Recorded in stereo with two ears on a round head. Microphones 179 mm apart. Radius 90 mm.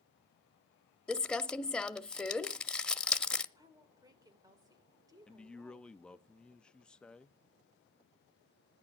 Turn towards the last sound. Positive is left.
turn(degrees=5)  # may be behind; listen again after turning